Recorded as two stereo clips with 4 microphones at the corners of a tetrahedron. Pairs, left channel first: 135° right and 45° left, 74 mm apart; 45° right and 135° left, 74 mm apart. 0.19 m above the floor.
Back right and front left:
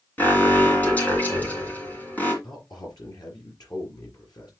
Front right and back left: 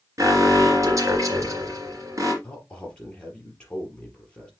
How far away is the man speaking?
About 3.5 m.